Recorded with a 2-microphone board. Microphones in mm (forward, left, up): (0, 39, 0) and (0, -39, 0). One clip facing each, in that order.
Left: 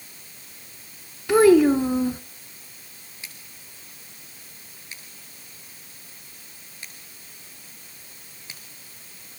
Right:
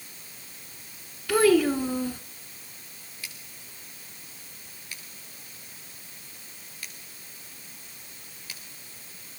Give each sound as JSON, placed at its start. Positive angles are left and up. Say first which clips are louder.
{"t": 1.3, "sound": "a child speaking", "louder": "left 6 dB", "side_deg": 20, "distance_m": 1.0}
{"t": 3.2, "sound": "scissors", "louder": "even", "side_deg": 25, "distance_m": 6.5}